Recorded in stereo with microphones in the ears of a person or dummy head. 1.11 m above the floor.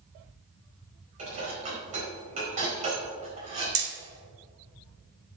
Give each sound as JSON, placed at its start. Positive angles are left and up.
{"t": 1.2, "sound": "dishes clattering", "side_deg": -40, "distance_m": 4.5}
{"t": 3.8, "sound": "hammering", "side_deg": -60, "distance_m": 2.5}